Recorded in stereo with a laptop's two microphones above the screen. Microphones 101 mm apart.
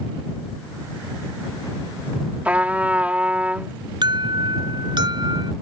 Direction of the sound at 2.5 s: 15° right (ahead or behind).